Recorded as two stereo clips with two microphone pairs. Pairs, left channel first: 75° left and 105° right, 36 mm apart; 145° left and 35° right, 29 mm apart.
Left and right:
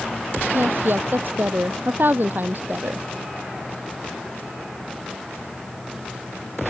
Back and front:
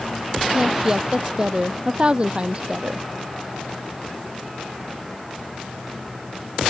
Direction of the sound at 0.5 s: 95° right.